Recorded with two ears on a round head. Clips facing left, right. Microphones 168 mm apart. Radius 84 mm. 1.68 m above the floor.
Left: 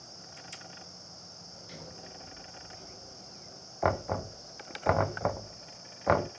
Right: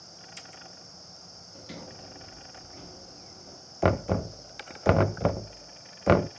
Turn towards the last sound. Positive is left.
turn(degrees=-35)  # may be behind; listen again after turning